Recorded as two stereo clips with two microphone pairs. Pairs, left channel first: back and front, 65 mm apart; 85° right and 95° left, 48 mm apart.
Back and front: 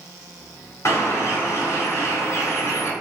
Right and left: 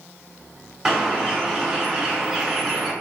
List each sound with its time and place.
0.8 s a bird: 175° left, 1.3 m